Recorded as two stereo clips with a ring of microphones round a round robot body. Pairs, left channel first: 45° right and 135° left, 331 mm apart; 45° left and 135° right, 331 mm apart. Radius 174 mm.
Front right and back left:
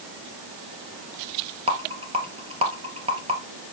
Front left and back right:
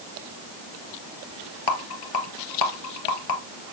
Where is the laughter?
No laughter in this recording.